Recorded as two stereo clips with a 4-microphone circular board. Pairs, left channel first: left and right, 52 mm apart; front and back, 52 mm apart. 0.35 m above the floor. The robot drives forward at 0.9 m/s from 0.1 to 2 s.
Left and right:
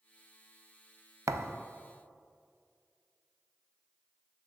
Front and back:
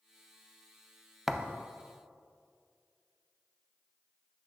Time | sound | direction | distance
1.3 | a thud | 95° right | 0.5 m